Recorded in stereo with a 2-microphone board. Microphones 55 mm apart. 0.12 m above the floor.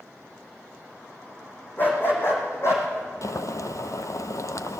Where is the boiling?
75° left (ahead or behind), 0.6 m.